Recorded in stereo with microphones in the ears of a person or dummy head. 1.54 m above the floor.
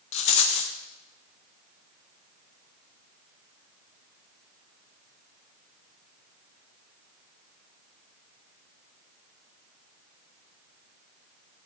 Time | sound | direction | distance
0.1 | a rattle | 30° left (ahead or behind) | 0.9 m